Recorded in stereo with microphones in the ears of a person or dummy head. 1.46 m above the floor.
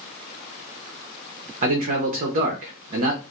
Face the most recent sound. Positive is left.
turn(degrees=-50)  # may be behind; listen again after turning